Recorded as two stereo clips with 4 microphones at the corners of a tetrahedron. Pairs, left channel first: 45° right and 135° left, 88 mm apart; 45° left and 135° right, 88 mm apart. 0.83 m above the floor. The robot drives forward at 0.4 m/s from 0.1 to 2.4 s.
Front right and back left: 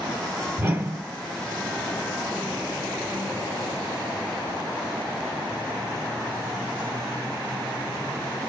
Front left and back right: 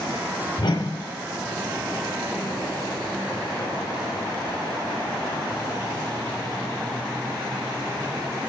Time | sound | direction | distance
0.6 | a whoosh | 75° left | 1.4 m